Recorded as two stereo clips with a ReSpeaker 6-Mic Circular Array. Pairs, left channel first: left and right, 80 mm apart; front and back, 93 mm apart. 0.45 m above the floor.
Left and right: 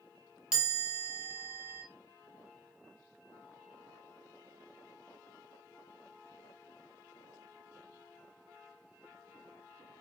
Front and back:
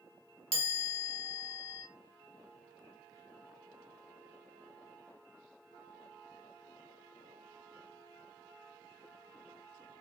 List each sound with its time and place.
0.5 s a chime: 10° right, 1.6 m